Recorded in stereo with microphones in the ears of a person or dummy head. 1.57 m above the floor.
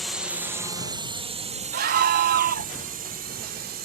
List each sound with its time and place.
0.0 s a drone: 5° left (ahead or behind); by 3.9 s 45° right (ahead or behind)
1.7 s a scream: 55° right (ahead or behind)